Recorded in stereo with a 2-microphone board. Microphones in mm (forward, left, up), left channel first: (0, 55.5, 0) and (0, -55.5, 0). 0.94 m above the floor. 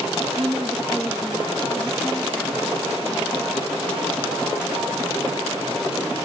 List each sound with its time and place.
0.4 s a woman speaking: 20° right (ahead or behind); by 5.0 s 15° left (ahead or behind)